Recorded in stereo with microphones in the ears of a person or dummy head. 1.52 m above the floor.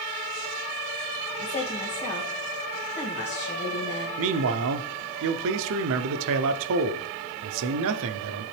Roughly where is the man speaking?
Right.